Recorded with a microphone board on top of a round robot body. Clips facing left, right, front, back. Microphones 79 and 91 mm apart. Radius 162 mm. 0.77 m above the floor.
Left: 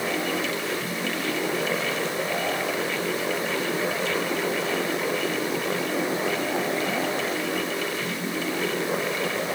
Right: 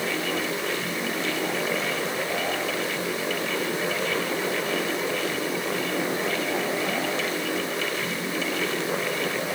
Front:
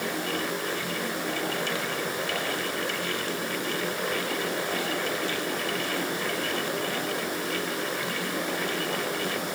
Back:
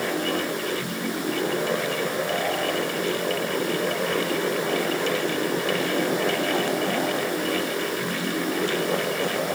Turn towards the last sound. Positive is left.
No sound to turn to.